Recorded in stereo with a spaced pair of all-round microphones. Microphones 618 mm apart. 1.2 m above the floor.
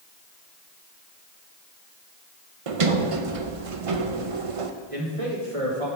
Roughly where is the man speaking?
Right.